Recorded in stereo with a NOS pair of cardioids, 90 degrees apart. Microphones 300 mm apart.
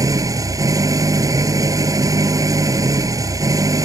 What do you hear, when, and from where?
0.0 s an engine running: 10° right